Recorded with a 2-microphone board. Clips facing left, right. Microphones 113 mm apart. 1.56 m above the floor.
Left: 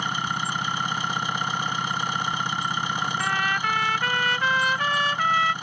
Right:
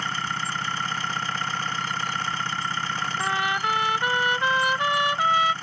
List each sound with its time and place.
0.0 s an engine running: 15° left (ahead or behind)
3.2 s a trumpet: 20° right (ahead or behind)